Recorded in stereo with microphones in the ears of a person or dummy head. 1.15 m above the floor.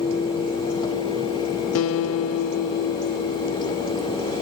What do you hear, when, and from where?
1.8 s a guitar: 70° left (ahead or behind)